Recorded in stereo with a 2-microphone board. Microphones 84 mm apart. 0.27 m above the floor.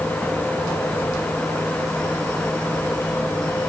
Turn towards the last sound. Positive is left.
No sound to turn to.